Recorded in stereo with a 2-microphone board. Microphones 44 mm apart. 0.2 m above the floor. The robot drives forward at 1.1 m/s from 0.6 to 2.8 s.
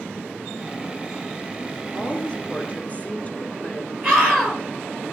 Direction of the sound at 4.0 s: 10° right (ahead or behind).